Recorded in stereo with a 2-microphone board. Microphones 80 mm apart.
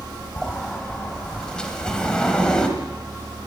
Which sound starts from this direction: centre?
A sliding door, at 0.4 s.